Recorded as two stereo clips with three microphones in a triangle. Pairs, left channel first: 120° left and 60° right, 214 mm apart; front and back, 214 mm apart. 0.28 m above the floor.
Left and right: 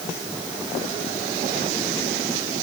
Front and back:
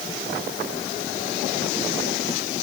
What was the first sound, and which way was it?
Only background noise.